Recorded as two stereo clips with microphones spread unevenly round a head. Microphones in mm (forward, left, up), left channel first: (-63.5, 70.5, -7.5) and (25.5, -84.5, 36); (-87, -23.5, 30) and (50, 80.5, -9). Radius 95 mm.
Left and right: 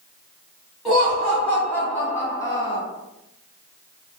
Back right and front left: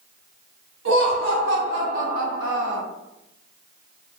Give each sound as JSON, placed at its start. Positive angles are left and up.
{"t": 0.8, "sound": "laughter", "azimuth_deg": 30, "distance_m": 1.7}